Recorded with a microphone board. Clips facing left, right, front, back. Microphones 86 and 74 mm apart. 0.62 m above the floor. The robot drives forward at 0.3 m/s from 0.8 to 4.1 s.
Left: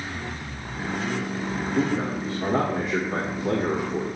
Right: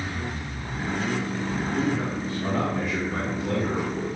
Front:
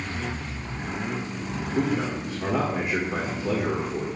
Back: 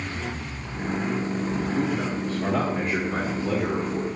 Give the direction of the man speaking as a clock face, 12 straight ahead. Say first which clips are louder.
Left 3 dB, front 5 dB; 10 o'clock.